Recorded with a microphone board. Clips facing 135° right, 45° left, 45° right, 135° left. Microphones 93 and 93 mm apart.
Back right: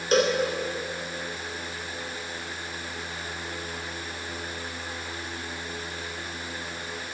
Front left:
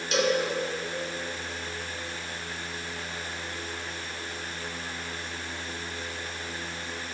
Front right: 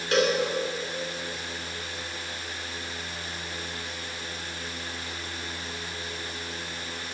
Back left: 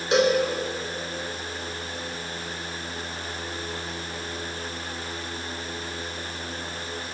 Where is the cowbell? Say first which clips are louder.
Back right 3 dB, back left 3 dB; 160° right, 1.5 m.